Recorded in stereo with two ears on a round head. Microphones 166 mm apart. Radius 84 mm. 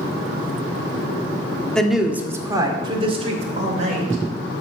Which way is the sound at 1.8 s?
5° left (ahead or behind).